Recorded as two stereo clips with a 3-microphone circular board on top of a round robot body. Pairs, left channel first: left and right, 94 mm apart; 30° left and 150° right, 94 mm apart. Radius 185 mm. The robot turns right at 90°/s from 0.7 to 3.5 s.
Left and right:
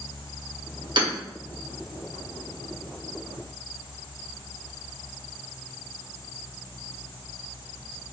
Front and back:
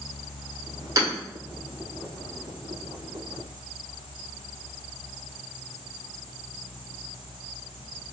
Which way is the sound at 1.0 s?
100° right.